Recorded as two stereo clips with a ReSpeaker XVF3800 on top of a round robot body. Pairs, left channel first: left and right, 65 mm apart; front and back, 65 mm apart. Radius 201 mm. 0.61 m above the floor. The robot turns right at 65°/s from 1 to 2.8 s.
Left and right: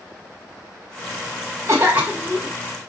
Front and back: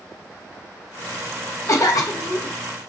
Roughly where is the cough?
Ahead right.